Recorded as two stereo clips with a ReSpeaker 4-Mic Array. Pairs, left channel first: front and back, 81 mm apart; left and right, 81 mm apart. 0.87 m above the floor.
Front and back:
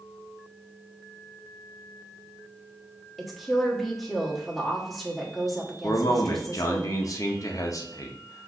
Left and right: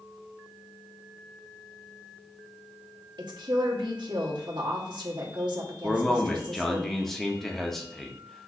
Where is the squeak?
No squeak in this recording.